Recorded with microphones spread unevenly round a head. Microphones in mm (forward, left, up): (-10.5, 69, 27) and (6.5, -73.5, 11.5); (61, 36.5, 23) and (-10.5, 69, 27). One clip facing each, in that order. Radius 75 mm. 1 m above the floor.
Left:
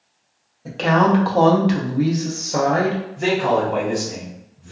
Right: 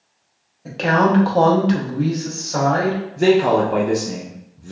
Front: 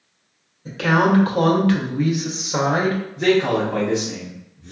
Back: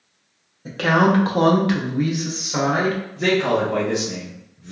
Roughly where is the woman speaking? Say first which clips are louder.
Even, even; behind.